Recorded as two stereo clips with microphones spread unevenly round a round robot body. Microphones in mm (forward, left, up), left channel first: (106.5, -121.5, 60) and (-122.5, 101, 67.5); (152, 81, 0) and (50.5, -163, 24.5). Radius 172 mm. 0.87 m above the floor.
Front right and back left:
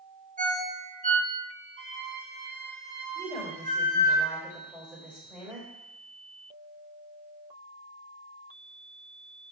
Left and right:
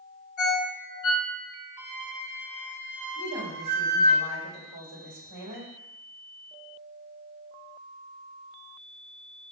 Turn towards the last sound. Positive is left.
turn(degrees=-140)